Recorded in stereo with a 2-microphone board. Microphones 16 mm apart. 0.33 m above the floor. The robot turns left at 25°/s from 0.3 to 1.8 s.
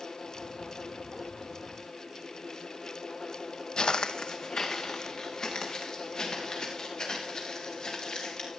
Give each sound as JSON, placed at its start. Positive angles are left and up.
{"t": 3.8, "sound": "footsteps", "side_deg": 50, "distance_m": 0.6}